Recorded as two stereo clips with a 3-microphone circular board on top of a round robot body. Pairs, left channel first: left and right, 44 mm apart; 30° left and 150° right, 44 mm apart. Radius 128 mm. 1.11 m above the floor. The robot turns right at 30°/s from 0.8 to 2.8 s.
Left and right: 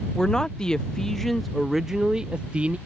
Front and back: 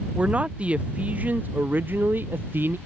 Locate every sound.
0.1 s a man speaking: 160° left; by 2.8 s 140° right